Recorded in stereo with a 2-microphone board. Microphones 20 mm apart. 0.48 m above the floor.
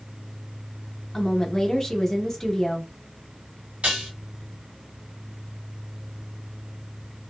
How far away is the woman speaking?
About 0.7 m.